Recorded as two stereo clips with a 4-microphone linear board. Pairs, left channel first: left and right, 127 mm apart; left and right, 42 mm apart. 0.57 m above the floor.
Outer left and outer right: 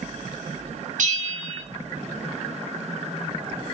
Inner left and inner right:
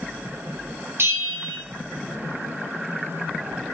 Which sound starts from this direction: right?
A bell, at 1.0 s.